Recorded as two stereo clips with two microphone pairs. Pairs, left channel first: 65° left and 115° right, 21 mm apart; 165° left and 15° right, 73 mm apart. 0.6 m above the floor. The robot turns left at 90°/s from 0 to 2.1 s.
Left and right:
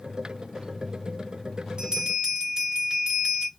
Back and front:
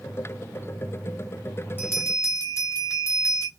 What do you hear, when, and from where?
1.8 s a bell: 135° right, 0.9 m; by 3.5 s 165° right, 0.9 m